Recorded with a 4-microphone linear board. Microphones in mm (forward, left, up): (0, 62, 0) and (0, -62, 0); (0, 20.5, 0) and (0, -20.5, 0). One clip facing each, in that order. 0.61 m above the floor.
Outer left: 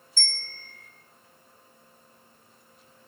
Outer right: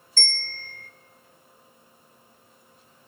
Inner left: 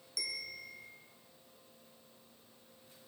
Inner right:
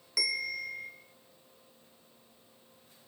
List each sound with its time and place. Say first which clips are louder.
0.2 s a bell: outer right 6 dB, inner right 10 dB; 55° right (ahead or behind), 1.4 m